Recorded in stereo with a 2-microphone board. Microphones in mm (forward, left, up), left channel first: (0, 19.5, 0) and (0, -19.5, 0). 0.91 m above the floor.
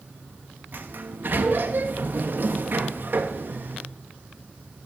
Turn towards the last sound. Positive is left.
turn(degrees=-50)  # may be behind; listen again after turning